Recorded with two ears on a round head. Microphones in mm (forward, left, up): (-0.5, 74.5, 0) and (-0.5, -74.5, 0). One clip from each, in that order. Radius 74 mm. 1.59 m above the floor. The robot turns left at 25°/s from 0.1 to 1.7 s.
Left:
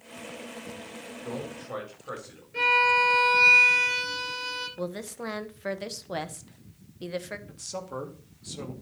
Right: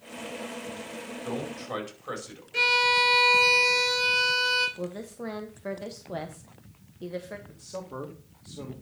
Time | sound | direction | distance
1.2 | a man speaking | 75° right (ahead or behind) | 4.5 m
2.5 | a violin | 80° right | 4.5 m
4.8 | a woman speaking | 55° left (ahead or behind) | 1.3 m
7.5 | a man speaking | 60° left (ahead or behind) | 2 m